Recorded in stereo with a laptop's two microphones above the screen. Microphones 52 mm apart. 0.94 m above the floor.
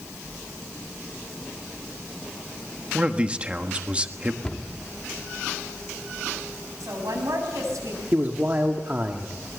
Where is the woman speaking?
80° right, 8 m.